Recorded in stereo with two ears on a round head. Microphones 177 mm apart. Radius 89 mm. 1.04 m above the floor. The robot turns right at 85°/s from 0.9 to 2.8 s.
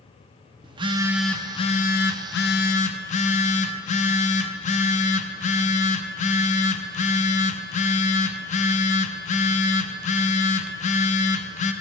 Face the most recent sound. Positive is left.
turn(degrees=135)